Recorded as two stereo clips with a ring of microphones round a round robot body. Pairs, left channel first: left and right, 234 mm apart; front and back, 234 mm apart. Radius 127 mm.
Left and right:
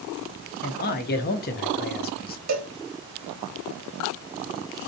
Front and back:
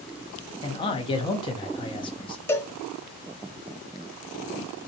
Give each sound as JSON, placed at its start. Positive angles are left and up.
{"t": 0.6, "sound": "a man speaking", "azimuth_deg": 60, "distance_m": 0.6}
{"t": 2.5, "sound": "a cowbell", "azimuth_deg": -80, "distance_m": 0.9}